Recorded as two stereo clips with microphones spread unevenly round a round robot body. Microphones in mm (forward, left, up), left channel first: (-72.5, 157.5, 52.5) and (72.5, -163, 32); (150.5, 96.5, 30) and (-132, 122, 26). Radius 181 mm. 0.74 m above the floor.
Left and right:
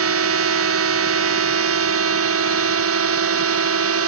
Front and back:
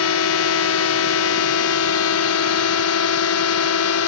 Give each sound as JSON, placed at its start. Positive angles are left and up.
{"t": 0.0, "sound": "a drone", "azimuth_deg": -25}